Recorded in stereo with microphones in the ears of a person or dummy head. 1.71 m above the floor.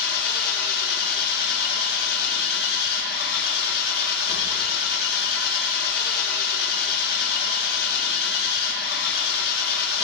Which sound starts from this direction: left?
An engine running, at 0.0 s.